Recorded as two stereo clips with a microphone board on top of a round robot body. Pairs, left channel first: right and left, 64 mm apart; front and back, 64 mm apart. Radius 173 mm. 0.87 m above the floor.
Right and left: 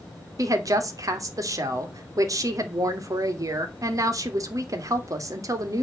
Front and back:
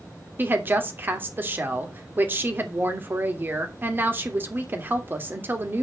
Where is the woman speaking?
120° left, 2.5 m.